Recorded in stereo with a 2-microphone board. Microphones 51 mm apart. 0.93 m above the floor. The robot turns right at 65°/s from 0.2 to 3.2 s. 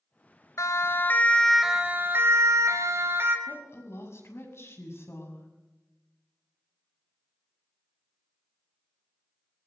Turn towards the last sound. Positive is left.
turn(degrees=55)  # may be behind; listen again after turning